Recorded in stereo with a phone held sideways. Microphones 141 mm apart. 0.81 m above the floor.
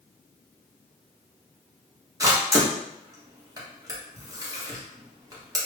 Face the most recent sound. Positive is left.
turn(degrees=-25)  # may be behind; listen again after turning